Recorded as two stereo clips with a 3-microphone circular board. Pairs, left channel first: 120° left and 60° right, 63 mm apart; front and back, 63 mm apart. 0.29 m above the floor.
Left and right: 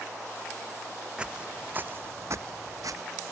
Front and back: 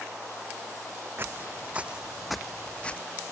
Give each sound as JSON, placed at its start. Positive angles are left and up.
{"t": 1.2, "sound": "footsteps", "azimuth_deg": -135}